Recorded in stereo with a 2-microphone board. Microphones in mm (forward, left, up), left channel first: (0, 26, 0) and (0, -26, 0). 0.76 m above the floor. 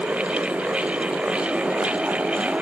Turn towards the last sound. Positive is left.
No sound to turn to.